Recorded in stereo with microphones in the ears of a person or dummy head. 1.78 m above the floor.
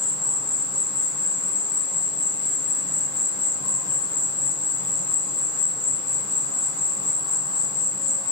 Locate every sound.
0.0 s an insect: 70° left (ahead or behind), 1.3 m